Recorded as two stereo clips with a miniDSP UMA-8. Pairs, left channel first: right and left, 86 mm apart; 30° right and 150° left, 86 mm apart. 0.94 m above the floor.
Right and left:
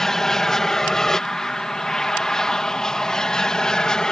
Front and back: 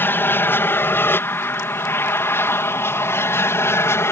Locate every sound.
0.0 s an aircraft: 10° right; by 4.1 s 15° right